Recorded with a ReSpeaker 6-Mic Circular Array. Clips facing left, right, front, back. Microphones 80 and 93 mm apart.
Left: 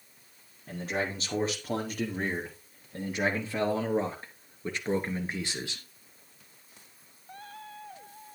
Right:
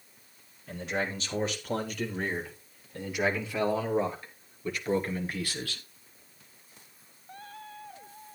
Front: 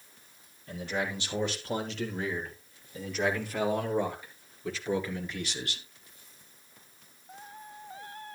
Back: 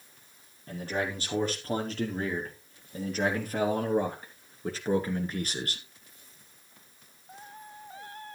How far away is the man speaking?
About 5.5 m.